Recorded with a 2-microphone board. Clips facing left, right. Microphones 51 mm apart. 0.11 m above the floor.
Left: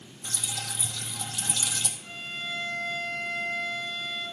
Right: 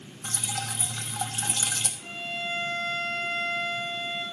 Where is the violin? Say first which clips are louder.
Right 3 dB; 70° right (ahead or behind), 4.5 m.